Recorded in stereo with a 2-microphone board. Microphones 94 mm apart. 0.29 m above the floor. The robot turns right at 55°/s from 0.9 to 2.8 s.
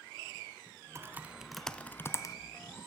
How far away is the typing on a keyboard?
About 0.9 m.